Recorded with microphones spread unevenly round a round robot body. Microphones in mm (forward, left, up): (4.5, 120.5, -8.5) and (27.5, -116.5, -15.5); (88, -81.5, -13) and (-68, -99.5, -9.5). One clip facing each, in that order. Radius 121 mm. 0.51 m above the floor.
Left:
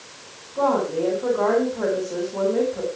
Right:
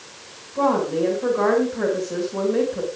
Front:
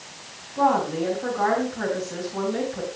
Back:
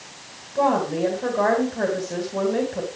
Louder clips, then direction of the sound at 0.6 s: Right 1 dB, back 1 dB; 150° right.